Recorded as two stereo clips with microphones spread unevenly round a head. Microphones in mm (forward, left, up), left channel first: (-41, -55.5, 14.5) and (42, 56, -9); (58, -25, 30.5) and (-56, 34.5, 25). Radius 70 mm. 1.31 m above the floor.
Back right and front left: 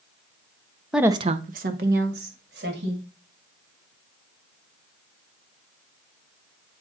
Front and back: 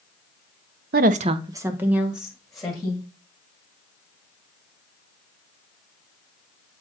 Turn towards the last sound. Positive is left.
turn(degrees=60)